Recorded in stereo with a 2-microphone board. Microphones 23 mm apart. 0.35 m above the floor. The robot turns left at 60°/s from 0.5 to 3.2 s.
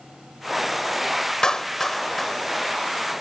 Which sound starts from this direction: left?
A clap, at 1.4 s.